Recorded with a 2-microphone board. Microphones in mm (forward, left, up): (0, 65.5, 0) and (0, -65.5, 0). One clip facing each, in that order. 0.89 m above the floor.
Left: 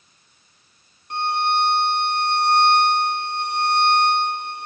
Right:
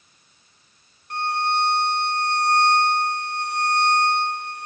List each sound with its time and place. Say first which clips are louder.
1.1 s a violin: left 2 dB; 20° left (ahead or behind), 0.6 m